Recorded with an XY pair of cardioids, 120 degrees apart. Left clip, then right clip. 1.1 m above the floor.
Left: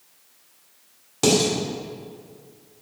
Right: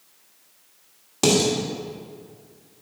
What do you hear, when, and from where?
1.2 s dishes clattering: 10° right, 2 m